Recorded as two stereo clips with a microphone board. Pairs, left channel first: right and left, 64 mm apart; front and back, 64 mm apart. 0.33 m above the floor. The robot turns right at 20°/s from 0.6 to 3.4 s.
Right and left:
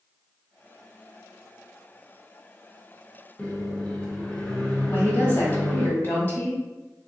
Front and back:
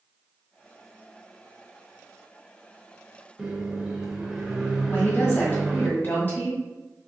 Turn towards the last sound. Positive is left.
turn(degrees=-50)